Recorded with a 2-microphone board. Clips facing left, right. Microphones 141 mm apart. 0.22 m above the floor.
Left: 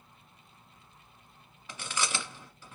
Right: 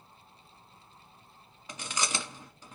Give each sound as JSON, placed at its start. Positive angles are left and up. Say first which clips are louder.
{"t": 1.7, "sound": "chewing", "louder": "even", "side_deg": -20, "distance_m": 1.3}